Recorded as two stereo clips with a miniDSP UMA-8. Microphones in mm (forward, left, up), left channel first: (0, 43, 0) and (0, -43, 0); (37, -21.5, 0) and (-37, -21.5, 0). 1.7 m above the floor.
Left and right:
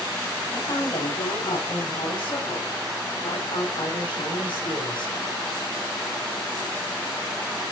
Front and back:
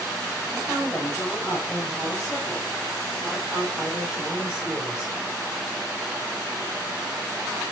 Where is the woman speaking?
80° left, 9 m; by 5.1 s 100° left, 11.5 m.